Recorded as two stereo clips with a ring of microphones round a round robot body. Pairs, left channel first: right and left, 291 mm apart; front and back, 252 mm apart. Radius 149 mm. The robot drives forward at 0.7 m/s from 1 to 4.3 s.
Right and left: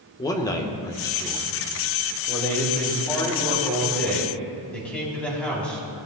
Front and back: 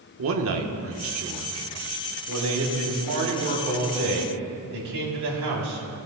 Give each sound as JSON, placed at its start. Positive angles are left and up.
{"t": 0.2, "sound": "a man speaking", "azimuth_deg": -165, "distance_m": 1.1}